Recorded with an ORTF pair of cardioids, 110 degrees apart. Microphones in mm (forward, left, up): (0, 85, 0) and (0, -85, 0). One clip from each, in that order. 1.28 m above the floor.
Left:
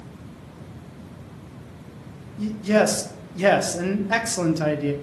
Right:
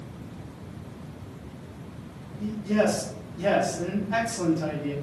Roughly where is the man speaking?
Left.